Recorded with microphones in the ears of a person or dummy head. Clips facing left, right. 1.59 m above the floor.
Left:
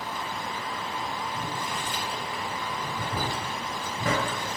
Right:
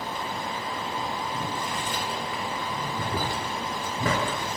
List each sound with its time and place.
1.3 s boiling: 45° right (ahead or behind), 0.7 m